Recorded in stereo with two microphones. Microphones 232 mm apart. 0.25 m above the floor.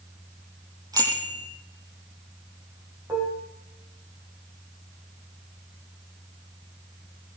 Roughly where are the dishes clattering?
Centre.